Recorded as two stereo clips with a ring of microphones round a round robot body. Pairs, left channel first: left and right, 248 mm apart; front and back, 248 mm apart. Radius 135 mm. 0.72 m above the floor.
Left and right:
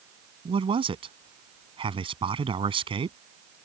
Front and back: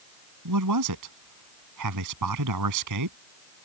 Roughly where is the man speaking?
Behind.